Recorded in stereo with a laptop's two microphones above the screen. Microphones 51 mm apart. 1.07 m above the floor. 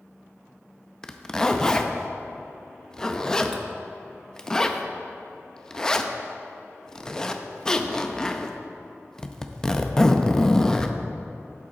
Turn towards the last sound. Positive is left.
turn(degrees=15)  # may be behind; listen again after turning